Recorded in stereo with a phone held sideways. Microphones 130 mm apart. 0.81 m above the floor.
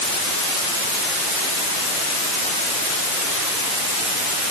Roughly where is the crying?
No crying in this recording.